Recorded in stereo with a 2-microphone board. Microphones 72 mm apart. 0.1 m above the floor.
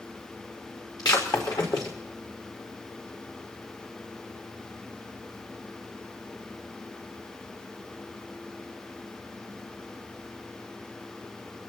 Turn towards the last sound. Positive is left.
turn(degrees=60)  # may be behind; listen again after turning